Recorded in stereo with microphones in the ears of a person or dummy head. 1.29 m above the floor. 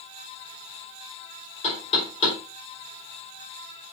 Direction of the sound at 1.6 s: 35° left (ahead or behind).